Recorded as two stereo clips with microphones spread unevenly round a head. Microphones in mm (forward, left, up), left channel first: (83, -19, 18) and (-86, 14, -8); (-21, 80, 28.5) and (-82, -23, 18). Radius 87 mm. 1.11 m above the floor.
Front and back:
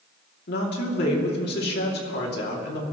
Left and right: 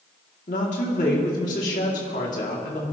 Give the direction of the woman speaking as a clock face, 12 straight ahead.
11 o'clock.